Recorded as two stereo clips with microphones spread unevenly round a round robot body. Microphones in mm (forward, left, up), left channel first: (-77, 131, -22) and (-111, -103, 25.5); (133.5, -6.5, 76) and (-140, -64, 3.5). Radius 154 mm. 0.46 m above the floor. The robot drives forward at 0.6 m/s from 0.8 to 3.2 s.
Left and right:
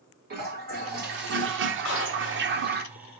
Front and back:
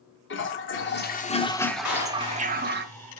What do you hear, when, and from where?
0.3 s a toilet flushing: 40° right, 0.9 m; by 2.9 s 145° right, 1.0 m
1.9 s a clap: 35° left, 4 m; by 2.8 s 40° left, 3.5 m